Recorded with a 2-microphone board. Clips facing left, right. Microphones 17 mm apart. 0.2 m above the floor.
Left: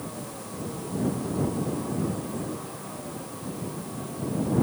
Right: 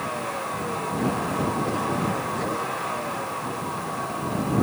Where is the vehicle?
80° right.